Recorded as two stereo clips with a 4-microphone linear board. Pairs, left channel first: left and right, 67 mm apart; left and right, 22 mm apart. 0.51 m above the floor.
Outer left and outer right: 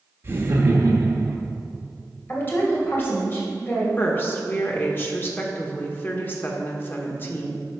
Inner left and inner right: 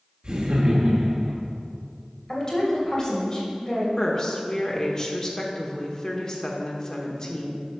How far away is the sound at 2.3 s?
About 2.5 m.